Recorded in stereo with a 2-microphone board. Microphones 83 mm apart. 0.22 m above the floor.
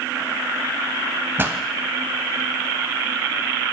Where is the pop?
25° right (ahead or behind), 0.8 m.